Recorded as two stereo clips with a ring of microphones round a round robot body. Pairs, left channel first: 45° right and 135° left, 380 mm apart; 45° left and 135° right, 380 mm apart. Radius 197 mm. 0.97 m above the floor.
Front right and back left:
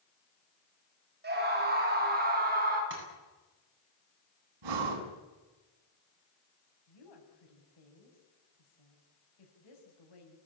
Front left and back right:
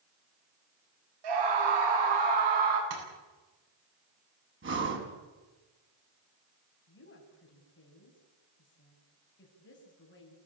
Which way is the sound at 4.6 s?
165° left.